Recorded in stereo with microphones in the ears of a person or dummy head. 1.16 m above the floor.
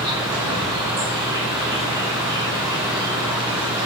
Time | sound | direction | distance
0.0 | an insect | 25° right (ahead or behind) | 1.5 m